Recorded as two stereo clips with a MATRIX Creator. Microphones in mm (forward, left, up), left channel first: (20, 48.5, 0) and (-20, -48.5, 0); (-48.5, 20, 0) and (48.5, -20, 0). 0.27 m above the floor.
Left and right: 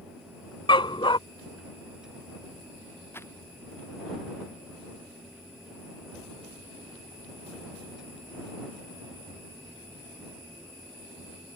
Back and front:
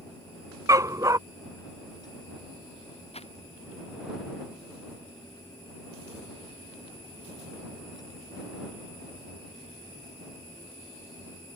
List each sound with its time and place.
0.7 s a dog barking: 30° left
3.1 s crumpling: 135° left